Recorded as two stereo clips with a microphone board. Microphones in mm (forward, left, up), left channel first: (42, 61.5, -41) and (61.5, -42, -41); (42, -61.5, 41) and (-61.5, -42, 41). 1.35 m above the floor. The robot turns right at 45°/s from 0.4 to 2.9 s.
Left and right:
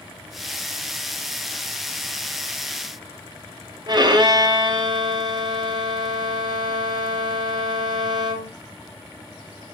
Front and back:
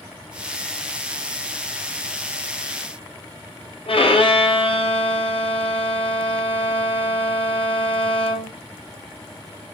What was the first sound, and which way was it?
A violin, 35° right.